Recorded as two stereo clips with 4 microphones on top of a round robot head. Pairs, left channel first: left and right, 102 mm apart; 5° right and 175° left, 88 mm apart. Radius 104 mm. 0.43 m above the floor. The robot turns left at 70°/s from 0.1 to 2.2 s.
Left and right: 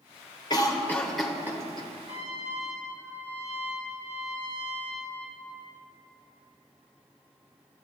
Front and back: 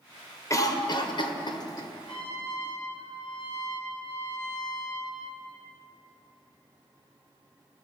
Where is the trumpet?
10° right, 2.5 m; by 5.5 s 20° right, 2.5 m.